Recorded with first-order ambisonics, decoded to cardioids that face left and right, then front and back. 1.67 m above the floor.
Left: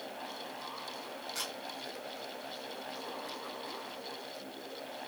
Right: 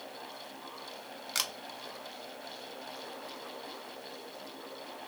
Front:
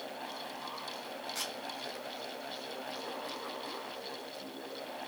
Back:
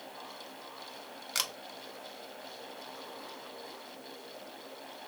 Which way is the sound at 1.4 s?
135° right.